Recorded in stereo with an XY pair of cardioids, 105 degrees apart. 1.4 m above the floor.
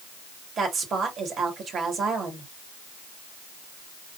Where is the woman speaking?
55° right, 3 m.